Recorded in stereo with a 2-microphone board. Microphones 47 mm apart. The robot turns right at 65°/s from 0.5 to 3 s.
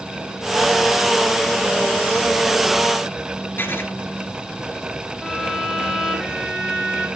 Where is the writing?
50° left (ahead or behind), 1.8 m.